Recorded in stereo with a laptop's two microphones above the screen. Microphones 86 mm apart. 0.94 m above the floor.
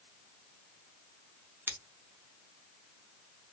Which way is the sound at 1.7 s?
25° right (ahead or behind).